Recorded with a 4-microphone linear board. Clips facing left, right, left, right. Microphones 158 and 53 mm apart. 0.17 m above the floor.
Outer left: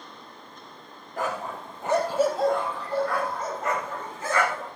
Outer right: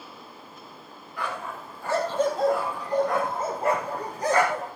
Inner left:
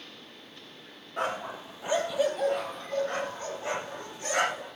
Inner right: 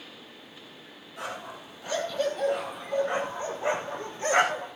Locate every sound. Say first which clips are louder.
1.2 s a dog barking: outer left 3 dB, inner left 5 dB; 45° left (ahead or behind), 2.5 m; by 4.7 s 40° right (ahead or behind), 5 m